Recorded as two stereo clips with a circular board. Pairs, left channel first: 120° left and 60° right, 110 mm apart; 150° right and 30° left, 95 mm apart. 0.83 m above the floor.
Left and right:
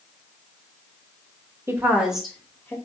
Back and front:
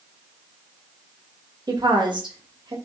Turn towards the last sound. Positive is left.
turn(degrees=55)